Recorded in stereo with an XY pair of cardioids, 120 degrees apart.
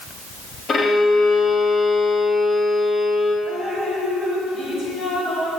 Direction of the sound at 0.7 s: 40° left.